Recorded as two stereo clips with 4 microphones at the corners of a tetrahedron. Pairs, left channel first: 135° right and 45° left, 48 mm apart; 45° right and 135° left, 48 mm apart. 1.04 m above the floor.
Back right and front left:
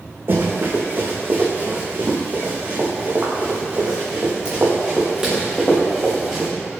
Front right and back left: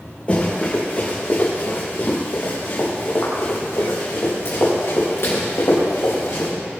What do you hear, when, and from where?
0.3 s running footsteps: 15° left, 4.5 m; by 6.5 s 40° right, 5.5 m